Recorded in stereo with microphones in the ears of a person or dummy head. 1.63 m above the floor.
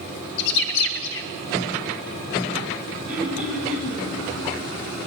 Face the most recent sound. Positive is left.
turn(degrees=-10)  # may be behind; listen again after turning